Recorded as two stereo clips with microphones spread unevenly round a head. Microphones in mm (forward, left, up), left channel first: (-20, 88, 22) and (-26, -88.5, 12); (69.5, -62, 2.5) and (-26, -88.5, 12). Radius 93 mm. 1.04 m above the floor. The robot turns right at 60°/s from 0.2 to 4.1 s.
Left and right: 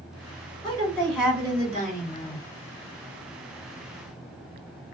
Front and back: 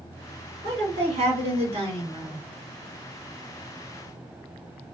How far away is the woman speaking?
About 2 m.